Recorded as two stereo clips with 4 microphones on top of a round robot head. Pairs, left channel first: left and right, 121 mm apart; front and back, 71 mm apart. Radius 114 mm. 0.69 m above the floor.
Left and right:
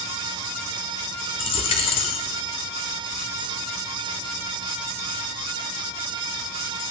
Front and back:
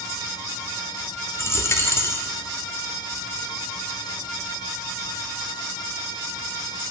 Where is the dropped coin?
50° left, 0.6 m.